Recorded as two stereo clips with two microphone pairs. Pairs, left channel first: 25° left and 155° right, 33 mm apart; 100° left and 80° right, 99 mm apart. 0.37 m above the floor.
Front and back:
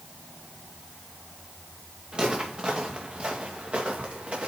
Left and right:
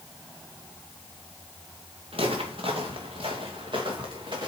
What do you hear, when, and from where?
2.1 s footsteps: 95° right, 2.5 m; by 4.5 s 115° right, 3 m